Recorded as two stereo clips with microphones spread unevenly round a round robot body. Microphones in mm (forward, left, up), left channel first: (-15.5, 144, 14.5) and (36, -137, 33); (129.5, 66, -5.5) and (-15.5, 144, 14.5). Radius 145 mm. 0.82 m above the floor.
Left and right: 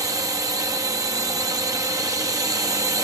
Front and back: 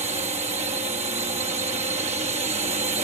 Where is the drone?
160° right.